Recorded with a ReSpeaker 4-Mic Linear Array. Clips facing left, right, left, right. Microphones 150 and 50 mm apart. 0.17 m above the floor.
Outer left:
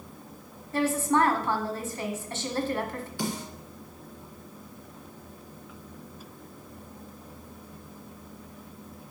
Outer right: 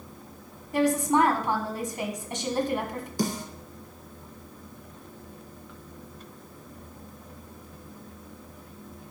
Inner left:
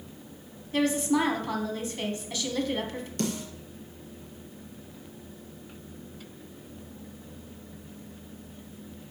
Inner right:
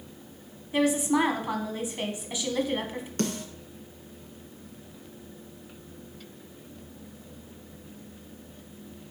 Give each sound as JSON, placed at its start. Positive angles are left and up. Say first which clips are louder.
{"t": 0.7, "sound": "a woman speaking", "louder": "outer right 2 dB, inner right 1 dB", "side_deg": -15, "distance_m": 1.3}
{"t": 3.2, "sound": "a snare drum", "louder": "outer right 4 dB, inner right 1 dB", "side_deg": -40, "distance_m": 2.0}